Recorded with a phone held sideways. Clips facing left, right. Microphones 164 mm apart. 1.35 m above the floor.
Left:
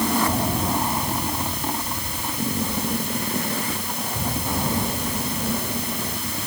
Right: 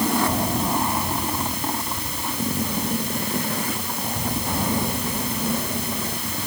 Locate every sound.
Only background noise.